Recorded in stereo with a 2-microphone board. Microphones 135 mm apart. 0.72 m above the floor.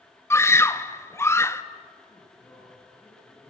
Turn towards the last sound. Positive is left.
turn(degrees=20)  # may be behind; listen again after turning